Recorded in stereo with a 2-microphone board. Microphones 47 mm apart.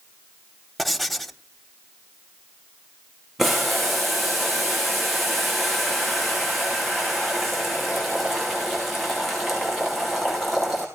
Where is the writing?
5° left (ahead or behind), 1.1 m.